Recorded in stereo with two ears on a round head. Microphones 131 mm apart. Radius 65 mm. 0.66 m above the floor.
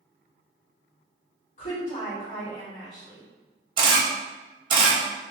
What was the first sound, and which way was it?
A woman speaking, 50° left (ahead or behind).